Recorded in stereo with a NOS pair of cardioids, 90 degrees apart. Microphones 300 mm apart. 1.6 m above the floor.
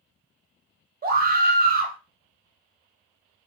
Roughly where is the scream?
Ahead right.